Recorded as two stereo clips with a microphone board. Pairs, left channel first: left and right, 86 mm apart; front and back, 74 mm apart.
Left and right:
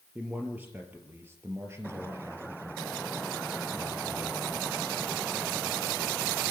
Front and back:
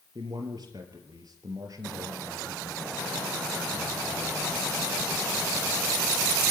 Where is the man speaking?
160° right, 3.5 m; by 5.0 s 120° right, 4.5 m.